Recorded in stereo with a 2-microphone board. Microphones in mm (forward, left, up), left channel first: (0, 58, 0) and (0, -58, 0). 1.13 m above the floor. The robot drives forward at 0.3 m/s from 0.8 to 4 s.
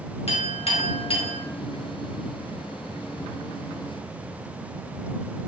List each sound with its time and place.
0.3 s a clink: 60° left (ahead or behind), 0.6 m; by 1.4 s 50° left (ahead or behind), 0.7 m